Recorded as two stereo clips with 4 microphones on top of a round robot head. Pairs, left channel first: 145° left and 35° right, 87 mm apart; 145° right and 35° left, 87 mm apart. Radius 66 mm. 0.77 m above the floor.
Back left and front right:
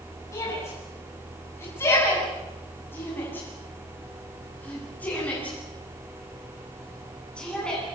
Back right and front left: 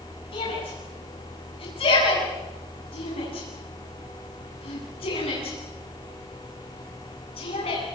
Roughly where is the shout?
Behind.